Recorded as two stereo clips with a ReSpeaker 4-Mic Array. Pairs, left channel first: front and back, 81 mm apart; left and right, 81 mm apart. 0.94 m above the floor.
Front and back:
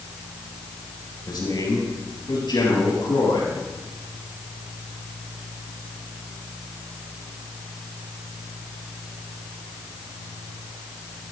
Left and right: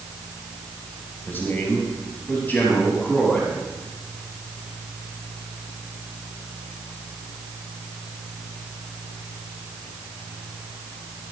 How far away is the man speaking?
About 4 m.